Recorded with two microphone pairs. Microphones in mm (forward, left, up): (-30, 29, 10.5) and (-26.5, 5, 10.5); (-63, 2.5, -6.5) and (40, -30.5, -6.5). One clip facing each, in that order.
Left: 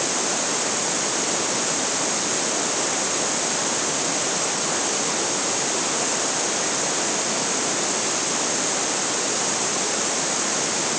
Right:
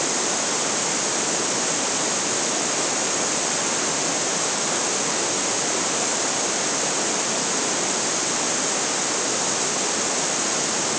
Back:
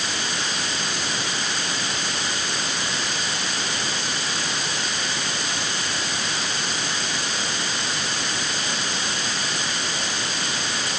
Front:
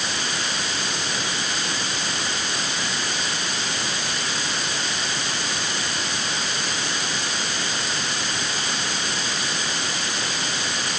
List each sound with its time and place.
Only background noise.